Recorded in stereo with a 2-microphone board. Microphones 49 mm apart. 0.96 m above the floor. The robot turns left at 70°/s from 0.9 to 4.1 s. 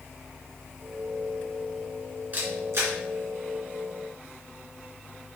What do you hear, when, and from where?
2.3 s a camera shutter: 35° right (ahead or behind), 2.5 m; by 2.9 s 75° right (ahead or behind), 2.5 m